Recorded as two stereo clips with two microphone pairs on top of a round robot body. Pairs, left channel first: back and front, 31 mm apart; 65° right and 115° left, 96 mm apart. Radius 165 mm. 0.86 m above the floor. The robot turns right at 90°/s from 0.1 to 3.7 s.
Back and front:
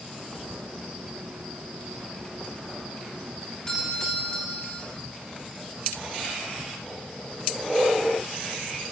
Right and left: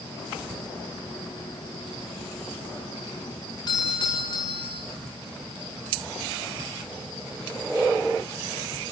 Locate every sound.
3.7 s a doorbell: 110° right, 5.5 m; by 4.8 s 105° right, 5.5 m